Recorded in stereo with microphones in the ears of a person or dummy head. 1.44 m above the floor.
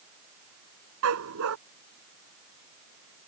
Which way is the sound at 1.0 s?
75° right (ahead or behind).